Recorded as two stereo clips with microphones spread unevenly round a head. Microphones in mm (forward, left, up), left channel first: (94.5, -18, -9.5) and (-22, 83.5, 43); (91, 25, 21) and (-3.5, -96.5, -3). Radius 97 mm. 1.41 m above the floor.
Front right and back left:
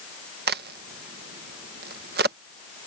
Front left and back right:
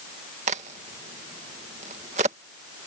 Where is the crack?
170° left.